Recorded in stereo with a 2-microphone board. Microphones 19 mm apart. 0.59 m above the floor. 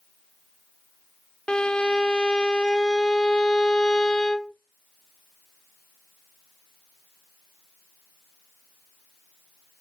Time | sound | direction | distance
1.5 | a violin | 50° left (ahead or behind) | 0.6 m